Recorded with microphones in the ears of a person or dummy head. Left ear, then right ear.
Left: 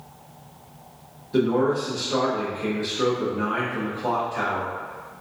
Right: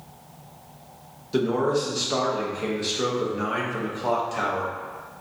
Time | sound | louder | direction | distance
1.3 | a man speaking | left 1 dB | 30° right (ahead or behind) | 0.7 m